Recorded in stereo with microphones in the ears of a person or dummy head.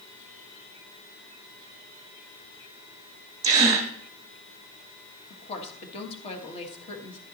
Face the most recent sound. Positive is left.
turn(degrees=35)  # may be behind; listen again after turning